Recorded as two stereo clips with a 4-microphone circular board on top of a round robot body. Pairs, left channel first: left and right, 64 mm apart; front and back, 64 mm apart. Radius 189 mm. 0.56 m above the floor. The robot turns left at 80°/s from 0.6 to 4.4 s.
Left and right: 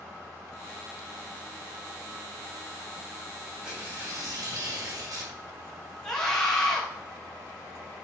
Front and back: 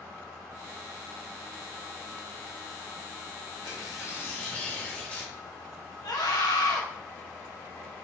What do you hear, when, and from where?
3.6 s tearing paper: 10° right, 3 m; by 5.3 s 70° right, 3 m
6.0 s a scream: 10° left, 2.5 m